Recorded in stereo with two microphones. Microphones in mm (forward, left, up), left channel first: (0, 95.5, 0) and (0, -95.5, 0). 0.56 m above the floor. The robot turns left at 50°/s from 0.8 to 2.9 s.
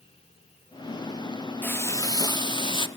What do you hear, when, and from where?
1.6 s frying: 10° left (ahead or behind), 1.1 m; by 2.9 s 25° left (ahead or behind), 1.1 m